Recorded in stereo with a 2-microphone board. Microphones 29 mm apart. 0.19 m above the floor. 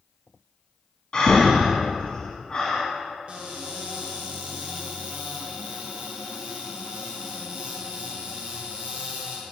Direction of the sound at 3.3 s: 50° right (ahead or behind).